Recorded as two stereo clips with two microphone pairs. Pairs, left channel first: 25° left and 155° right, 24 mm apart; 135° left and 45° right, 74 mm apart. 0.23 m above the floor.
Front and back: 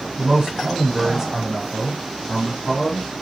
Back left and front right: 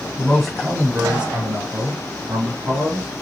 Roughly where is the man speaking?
Behind right.